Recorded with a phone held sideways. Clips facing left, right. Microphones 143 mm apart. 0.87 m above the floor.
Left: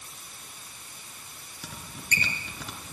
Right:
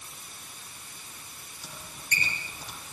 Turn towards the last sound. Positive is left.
turn(degrees=75)  # may be behind; listen again after turning